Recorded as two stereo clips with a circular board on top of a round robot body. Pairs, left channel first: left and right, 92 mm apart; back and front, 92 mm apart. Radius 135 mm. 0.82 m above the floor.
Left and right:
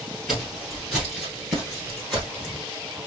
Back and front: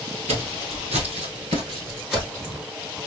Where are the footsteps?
5° right, 1.2 m; by 2.6 s 165° left, 0.8 m.